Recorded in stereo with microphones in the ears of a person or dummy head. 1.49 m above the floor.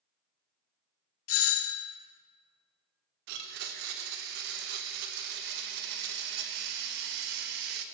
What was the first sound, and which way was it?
A doorbell, 75° left (ahead or behind).